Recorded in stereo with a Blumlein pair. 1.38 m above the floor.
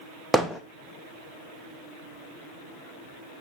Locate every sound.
0.3 s hammering: straight ahead, 1.0 m